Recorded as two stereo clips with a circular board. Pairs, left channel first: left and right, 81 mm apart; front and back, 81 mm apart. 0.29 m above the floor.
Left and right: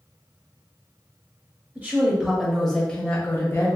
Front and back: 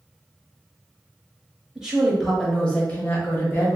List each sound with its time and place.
1.8 s a woman speaking: 115° right, 0.9 m; by 3.8 s 45° left, 1.2 m